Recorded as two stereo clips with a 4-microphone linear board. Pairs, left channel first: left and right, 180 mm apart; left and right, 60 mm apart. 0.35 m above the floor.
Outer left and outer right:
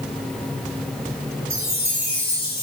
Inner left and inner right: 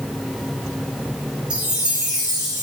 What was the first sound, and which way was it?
A chime, 20° right (ahead or behind).